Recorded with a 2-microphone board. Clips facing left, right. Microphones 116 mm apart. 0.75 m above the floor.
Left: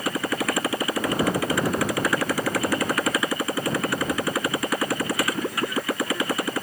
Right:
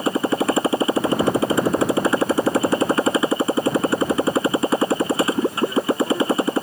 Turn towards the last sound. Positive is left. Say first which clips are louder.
# right 6 dB
turn(degrees=-25)  # may be behind; listen again after turning